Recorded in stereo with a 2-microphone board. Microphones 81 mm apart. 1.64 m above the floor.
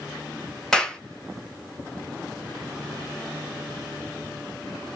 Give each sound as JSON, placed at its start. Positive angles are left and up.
{"t": 0.7, "sound": "a clap", "side_deg": 5, "distance_m": 1.5}